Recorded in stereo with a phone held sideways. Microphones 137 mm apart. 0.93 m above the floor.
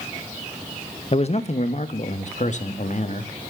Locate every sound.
1.1 s a man speaking: 45° left (ahead or behind), 1.0 m; by 3.3 s 55° left (ahead or behind), 2 m